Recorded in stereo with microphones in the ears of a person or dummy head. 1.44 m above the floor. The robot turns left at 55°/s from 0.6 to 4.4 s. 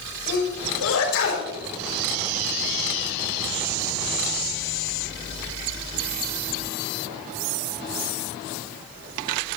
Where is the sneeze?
60° left (ahead or behind), 6 m; by 1.5 s 70° left (ahead or behind), 6 m.